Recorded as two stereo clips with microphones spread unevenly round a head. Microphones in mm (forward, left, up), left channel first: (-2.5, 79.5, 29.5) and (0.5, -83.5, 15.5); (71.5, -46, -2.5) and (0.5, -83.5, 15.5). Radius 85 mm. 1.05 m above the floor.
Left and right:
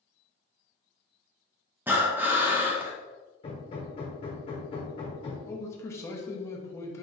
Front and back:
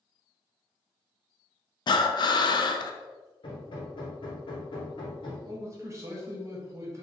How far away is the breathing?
About 0.5 m.